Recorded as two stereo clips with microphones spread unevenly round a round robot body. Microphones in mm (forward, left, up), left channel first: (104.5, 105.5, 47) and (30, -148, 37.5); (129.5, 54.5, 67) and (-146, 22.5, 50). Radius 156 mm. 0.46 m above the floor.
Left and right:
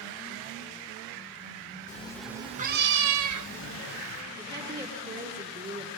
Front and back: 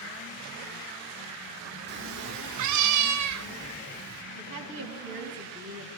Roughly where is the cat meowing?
Behind left.